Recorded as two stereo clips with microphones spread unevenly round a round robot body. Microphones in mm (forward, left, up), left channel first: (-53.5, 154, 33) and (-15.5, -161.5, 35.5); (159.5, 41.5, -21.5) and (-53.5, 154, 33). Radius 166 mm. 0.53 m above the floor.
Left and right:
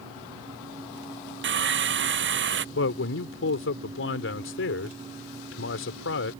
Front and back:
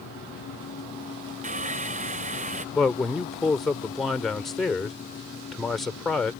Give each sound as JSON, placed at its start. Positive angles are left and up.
{"t": 1.4, "sound": "sawing", "azimuth_deg": -140}
{"t": 2.8, "sound": "a man speaking", "azimuth_deg": 55}